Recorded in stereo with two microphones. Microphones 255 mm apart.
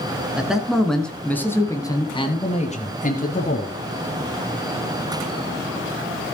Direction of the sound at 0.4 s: 5° right (ahead or behind).